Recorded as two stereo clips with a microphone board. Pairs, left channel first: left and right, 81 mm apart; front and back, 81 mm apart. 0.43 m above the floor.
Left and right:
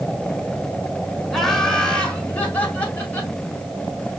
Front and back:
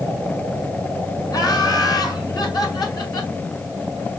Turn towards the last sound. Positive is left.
turn(degrees=25)